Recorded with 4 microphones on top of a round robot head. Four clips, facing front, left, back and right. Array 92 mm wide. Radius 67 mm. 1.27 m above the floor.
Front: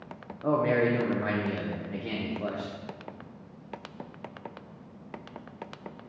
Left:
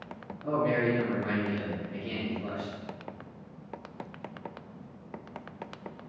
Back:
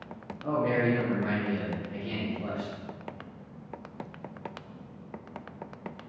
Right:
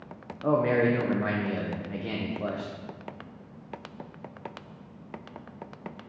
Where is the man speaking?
60° right, 1.0 m.